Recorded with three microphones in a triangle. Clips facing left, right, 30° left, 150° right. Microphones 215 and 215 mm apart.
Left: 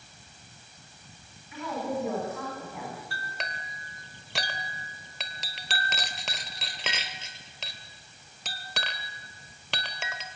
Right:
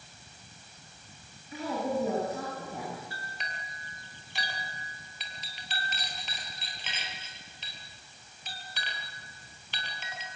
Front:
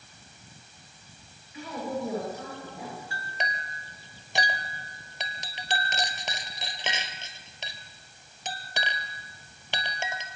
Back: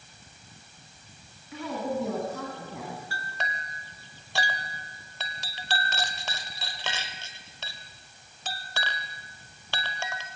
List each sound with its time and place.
1.5 s a woman speaking: 145° right, 8 m
3.1 s a clink: 100° left, 1.7 m